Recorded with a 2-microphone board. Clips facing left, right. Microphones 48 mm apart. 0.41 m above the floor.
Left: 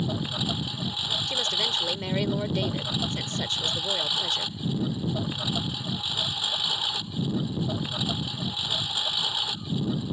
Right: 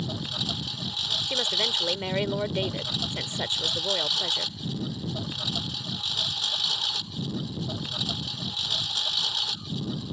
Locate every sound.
0.0 s a lawn mower: 10° left (ahead or behind)
1.3 s a woman speaking: 15° right (ahead or behind)